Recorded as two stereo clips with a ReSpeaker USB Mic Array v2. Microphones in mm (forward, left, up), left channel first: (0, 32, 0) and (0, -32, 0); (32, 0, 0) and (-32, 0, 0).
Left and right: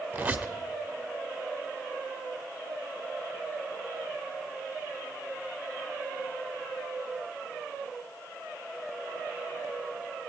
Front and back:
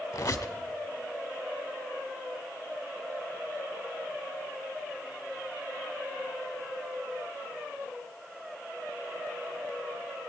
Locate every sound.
0.1 s a squeak: 20° right, 1.0 m